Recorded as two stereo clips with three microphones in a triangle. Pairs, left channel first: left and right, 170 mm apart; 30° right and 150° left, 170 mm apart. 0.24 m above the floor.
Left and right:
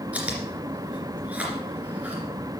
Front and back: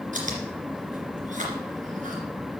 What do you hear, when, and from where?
0.1 s chewing: 170° right, 2.5 m